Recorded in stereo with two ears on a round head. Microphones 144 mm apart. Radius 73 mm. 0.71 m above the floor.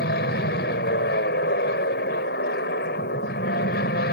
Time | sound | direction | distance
0.0 | an aircraft | 65° left (ahead or behind) | ?